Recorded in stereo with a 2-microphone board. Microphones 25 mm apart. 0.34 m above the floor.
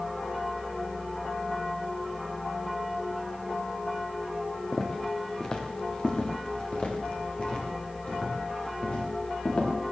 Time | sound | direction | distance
4.7 | footsteps | 20° left (ahead or behind) | 3 m